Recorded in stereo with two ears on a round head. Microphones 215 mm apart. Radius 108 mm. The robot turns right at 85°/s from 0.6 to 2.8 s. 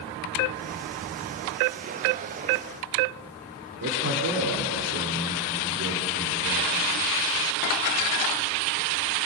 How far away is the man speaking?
About 3.5 m.